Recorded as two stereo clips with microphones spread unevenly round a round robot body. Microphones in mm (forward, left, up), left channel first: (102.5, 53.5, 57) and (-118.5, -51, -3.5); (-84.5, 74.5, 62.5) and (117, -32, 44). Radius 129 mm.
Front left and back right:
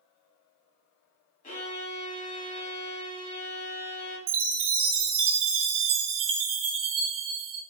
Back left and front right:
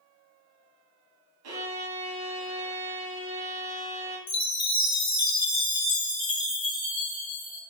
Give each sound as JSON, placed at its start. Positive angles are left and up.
{"t": 1.4, "sound": "a violin", "azimuth_deg": -35, "distance_m": 2.0}
{"t": 4.3, "sound": "a chime", "azimuth_deg": -140, "distance_m": 1.4}